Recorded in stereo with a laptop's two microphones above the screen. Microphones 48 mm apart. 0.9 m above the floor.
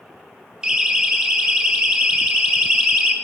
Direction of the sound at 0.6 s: 20° right (ahead or behind).